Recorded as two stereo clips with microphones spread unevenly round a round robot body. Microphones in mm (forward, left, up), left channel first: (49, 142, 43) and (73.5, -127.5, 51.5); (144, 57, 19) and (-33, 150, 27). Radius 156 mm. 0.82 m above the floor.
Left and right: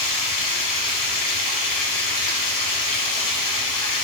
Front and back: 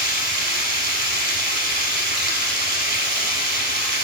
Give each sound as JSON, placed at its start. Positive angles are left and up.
{"t": 0.0, "sound": "running water", "azimuth_deg": 125, "distance_m": 1.6}